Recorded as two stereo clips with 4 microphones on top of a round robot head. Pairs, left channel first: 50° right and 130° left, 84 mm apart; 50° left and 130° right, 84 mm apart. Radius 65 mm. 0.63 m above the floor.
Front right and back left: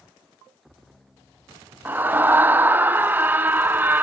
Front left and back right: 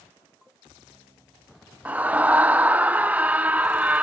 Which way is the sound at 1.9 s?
175° left.